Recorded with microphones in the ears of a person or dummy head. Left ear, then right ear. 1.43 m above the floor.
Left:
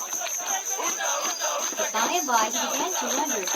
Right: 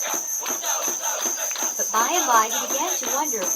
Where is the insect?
55° right (ahead or behind), 1.2 m.